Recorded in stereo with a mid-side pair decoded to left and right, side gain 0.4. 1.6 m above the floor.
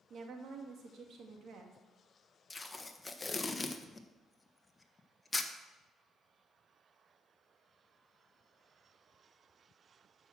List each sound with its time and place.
0.1 s a woman speaking: 65° right, 2.5 m
2.5 s tape being pulled: 20° left, 1.4 m